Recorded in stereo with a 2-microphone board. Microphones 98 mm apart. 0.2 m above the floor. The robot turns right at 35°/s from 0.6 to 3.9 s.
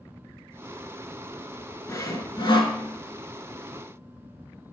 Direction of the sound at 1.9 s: 35° left.